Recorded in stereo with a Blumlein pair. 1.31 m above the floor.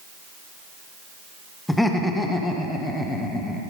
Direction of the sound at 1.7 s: 5° left.